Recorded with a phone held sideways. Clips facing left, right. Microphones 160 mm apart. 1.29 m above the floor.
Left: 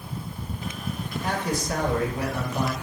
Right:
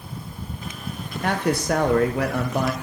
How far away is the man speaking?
About 0.8 m.